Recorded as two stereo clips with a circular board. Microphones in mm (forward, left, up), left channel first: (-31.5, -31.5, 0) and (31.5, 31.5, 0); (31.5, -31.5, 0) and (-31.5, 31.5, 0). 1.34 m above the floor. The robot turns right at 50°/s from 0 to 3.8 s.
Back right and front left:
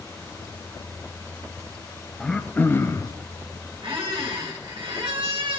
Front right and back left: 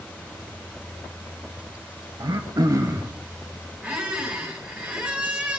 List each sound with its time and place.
2.2 s throat clearing: 145° left, 0.8 m; by 3.1 s 170° right, 0.8 m
3.8 s a squeak: 60° left, 1.9 m